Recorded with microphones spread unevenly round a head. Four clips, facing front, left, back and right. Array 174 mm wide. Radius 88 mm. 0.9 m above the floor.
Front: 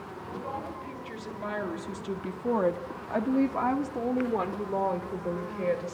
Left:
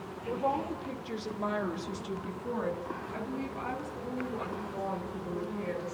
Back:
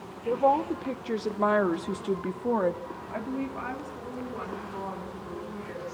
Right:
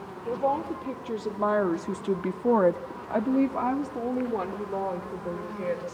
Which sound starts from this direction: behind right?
A woman speaking, at 0.2 s.